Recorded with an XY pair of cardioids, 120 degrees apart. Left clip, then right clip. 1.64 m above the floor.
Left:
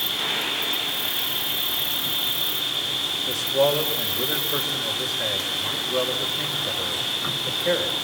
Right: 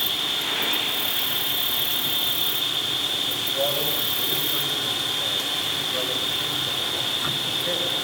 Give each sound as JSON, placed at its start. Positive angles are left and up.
{"t": 0.0, "sound": "an insect", "azimuth_deg": -5, "distance_m": 1.2}
{"t": 3.3, "sound": "a man speaking", "azimuth_deg": 65, "distance_m": 5.0}